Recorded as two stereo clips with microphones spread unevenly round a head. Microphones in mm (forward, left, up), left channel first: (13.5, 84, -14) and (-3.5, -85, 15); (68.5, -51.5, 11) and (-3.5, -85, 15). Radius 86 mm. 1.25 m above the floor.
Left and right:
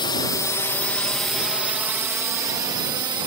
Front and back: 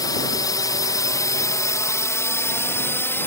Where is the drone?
30° left; by 3.3 s 30° right.